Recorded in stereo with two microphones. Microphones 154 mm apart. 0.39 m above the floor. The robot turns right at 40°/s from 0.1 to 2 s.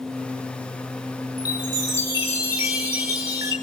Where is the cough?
I don't hear a cough.